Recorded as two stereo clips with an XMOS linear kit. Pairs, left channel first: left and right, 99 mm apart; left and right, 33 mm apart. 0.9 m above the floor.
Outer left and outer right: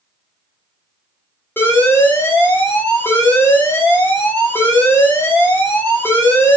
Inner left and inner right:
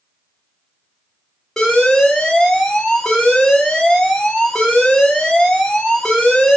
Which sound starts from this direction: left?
An alarm, at 1.6 s.